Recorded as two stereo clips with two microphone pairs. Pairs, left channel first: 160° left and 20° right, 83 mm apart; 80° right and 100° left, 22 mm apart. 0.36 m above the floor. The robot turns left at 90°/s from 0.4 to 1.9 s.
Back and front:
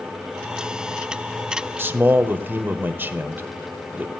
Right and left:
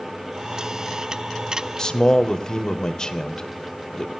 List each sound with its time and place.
1.8 s a man speaking: 50° right, 1.0 m; by 4.1 s 60° right, 1.0 m